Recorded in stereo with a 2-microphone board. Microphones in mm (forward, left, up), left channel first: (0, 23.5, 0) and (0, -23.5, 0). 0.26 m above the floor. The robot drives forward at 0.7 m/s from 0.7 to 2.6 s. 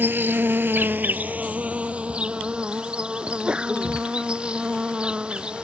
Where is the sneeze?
20° right (ahead or behind).